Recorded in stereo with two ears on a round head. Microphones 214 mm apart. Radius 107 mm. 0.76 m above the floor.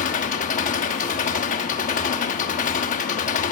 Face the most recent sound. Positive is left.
turn(degrees=30)  # may be behind; listen again after turning